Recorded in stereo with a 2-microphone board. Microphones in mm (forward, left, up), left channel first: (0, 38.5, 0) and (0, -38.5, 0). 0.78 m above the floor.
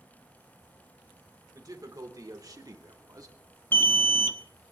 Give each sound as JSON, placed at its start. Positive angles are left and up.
{"t": 1.5, "sound": "a man speaking", "side_deg": -50, "distance_m": 3.0}
{"t": 3.7, "sound": "an alarm", "side_deg": 25, "distance_m": 0.9}